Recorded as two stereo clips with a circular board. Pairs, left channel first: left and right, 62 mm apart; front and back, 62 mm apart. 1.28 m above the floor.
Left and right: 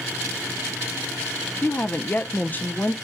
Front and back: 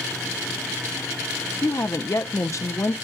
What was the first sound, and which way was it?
A woman speaking, 30° left.